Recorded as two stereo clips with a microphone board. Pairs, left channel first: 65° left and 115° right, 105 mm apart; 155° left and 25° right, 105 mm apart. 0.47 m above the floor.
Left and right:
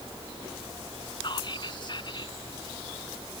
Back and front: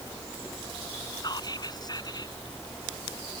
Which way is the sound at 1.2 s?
110° left.